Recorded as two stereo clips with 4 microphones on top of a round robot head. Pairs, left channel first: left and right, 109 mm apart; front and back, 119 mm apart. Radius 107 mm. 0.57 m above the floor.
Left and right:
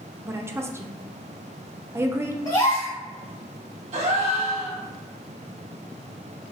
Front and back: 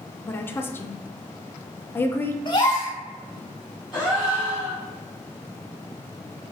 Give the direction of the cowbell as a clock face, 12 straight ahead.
No cowbell in this recording.